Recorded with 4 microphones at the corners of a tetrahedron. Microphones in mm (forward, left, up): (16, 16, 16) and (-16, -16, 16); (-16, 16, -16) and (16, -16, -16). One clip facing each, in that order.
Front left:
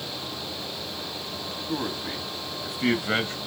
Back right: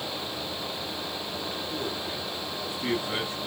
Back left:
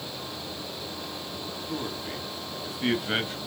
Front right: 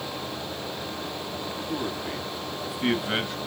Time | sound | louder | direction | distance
1.7 | a man speaking | front left 2 dB, front right 3 dB | 30° left | 3.5 m